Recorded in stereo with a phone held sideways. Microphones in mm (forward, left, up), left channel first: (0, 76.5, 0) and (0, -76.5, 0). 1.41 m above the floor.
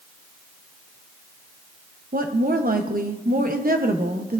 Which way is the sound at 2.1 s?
75° right (ahead or behind).